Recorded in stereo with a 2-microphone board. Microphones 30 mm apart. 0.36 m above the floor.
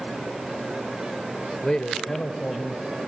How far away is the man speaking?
About 1.0 m.